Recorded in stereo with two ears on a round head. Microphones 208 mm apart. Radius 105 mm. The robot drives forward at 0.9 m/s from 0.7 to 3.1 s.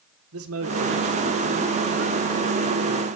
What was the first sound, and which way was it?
A man speaking, 65° right (ahead or behind).